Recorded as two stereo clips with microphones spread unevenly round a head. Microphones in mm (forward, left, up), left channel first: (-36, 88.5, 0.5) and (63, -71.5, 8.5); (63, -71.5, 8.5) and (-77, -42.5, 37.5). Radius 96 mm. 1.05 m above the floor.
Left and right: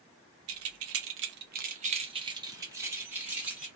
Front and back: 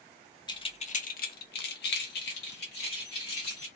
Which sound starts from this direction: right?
Keys jangling, at 0.5 s.